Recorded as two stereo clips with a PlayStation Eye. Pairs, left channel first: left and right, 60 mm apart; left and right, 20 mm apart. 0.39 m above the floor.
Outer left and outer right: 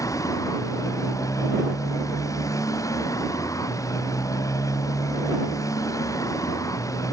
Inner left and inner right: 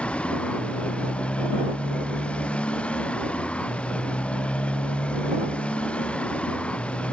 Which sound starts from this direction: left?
A motorcycle, at 0.0 s.